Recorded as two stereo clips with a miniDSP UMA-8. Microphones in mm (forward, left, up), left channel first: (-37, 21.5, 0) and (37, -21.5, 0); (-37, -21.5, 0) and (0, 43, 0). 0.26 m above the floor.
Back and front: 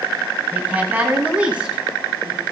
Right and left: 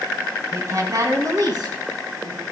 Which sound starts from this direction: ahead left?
A woman speaking, at 0.5 s.